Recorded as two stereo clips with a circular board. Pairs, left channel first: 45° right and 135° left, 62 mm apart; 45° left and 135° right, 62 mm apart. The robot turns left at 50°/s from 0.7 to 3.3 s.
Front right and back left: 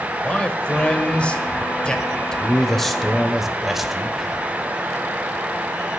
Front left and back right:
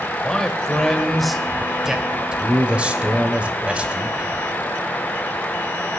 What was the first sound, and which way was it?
A man speaking, 20° right.